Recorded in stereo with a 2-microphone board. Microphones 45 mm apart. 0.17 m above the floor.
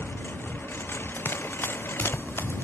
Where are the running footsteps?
50° left (ahead or behind); by 2.6 s 55° left (ahead or behind).